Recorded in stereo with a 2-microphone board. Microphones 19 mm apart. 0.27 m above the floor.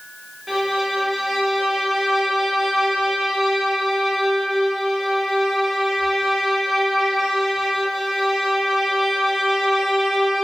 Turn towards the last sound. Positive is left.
turn(degrees=-10)  # may be behind; listen again after turning